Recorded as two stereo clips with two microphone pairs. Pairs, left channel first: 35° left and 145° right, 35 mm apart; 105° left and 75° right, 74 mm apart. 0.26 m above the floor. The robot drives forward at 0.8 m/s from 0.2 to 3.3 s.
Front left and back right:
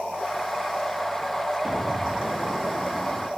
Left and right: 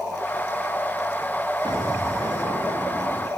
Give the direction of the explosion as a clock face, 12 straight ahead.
3 o'clock.